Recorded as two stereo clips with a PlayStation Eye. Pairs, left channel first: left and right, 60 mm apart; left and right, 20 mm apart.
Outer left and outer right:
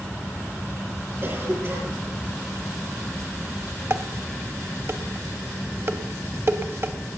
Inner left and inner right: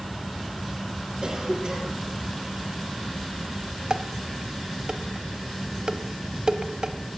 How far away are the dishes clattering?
About 0.9 m.